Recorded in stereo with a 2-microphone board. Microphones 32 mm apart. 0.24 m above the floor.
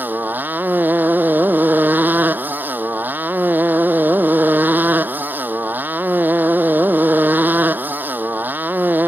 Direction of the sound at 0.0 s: 75° right (ahead or behind).